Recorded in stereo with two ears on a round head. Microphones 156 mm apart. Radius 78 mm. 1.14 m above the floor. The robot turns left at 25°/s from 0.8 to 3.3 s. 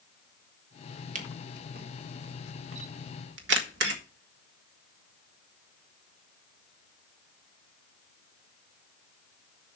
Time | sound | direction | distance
1.1 | a camera shutter | 45° right (ahead or behind) | 1.6 m